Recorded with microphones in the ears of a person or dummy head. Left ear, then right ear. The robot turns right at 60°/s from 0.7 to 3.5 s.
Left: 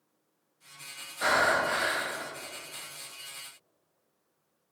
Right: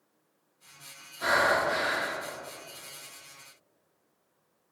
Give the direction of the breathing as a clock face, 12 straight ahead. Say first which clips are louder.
Even; 9 o'clock.